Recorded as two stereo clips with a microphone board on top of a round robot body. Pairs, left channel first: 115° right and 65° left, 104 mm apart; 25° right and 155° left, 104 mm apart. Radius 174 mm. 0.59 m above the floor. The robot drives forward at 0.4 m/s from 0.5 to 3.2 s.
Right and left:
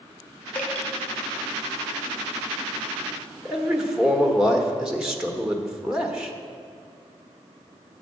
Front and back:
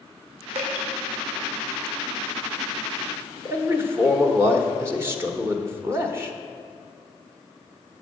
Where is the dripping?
170° left, 1.7 m.